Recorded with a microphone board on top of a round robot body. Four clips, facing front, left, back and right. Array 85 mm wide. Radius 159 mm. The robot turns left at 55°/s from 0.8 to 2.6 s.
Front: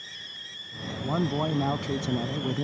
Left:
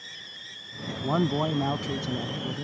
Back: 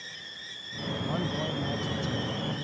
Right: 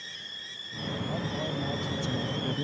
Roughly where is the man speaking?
Left.